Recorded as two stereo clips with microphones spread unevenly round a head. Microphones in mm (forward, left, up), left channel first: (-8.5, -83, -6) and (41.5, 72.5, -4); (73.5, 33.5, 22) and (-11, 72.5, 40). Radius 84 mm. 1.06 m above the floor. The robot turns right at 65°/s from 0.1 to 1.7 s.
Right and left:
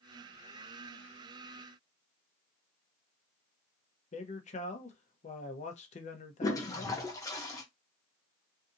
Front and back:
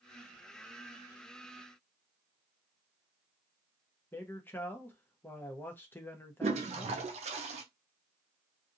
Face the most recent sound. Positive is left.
turn(degrees=180)